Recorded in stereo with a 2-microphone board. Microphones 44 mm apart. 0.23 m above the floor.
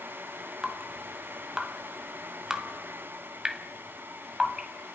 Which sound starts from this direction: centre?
Dripping, at 0.6 s.